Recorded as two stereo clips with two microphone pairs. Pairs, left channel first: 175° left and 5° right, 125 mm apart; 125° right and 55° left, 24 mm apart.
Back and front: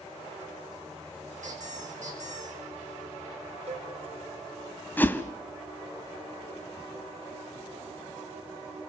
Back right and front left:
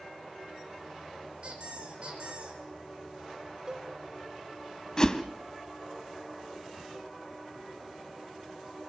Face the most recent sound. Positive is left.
turn(degrees=-125)